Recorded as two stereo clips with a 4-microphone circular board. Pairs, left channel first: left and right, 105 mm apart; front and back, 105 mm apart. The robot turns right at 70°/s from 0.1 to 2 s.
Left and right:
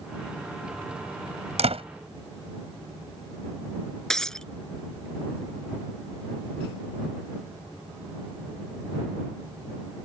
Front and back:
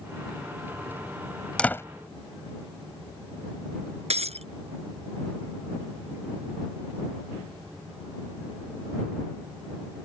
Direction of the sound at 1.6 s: 80° right.